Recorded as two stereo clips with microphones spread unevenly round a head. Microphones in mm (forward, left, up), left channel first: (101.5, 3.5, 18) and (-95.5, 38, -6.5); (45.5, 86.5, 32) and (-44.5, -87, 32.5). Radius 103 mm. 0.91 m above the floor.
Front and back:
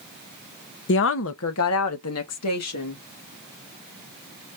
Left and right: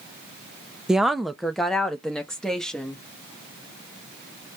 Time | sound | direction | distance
0.9 | a woman speaking | 30° right | 0.6 m